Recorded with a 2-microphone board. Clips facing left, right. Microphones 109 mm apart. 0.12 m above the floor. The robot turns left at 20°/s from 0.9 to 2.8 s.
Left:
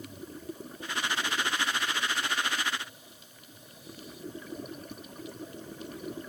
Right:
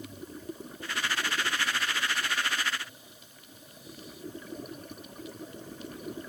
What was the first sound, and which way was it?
Only background noise.